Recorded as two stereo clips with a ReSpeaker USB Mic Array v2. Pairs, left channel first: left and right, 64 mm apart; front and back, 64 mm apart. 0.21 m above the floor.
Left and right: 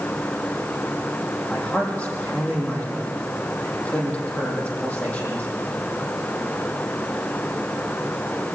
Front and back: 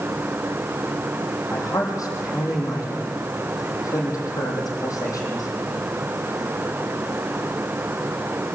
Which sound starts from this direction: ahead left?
A man speaking, at 1.5 s.